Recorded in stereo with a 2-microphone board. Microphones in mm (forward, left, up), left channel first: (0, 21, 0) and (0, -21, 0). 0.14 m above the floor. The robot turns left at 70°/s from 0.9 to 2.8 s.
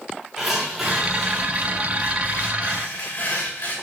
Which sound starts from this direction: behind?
Tearing paper, at 0.4 s.